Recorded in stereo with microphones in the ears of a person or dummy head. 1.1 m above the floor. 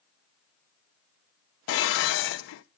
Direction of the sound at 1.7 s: 80° left.